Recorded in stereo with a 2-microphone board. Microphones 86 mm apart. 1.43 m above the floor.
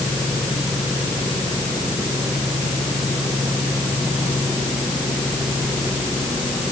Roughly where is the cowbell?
I don't hear a cowbell.